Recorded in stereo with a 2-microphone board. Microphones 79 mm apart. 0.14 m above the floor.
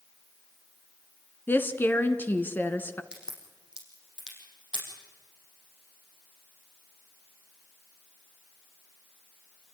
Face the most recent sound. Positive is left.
turn(degrees=-10)  # may be behind; listen again after turning